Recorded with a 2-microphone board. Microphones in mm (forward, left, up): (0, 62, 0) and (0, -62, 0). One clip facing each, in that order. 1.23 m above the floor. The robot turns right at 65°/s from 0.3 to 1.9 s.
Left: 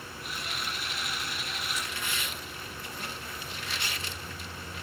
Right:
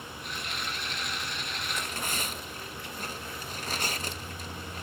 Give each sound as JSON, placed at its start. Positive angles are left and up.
{"t": 1.7, "sound": "tearing paper", "side_deg": -60, "distance_m": 1.0}